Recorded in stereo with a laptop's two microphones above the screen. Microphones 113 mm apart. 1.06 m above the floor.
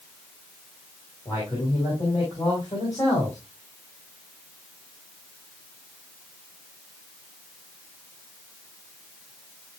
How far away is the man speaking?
About 4 m.